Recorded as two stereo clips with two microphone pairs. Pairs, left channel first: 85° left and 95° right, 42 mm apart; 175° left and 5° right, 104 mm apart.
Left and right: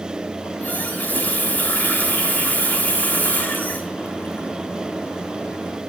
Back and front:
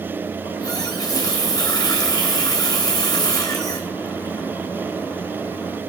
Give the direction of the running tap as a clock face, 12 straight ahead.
8 o'clock.